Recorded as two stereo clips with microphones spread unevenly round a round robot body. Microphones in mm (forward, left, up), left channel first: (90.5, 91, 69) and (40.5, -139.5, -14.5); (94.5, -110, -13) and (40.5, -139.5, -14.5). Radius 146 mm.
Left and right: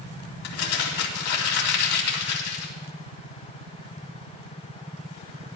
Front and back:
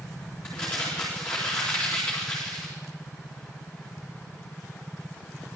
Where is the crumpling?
110° left, 2.5 m.